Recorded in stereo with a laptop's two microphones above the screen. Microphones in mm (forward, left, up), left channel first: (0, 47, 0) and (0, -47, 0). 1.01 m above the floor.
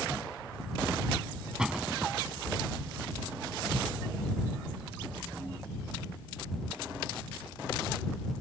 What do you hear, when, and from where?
1.6 s a door slam: 5° right (ahead or behind)